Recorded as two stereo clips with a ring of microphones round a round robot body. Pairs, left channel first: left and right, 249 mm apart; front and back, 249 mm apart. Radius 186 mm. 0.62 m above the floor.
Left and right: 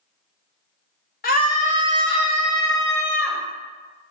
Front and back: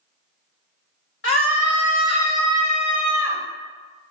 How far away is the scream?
About 1.9 m.